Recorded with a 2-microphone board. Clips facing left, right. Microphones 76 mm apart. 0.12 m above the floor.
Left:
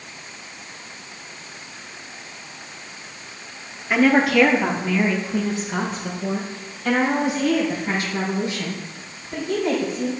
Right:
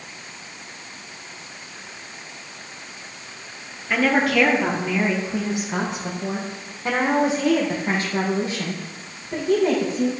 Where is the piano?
I don't hear a piano.